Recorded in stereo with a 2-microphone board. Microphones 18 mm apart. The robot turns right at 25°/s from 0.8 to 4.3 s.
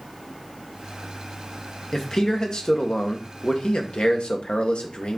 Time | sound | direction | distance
1.9 | a man speaking | 30° left | 1.4 m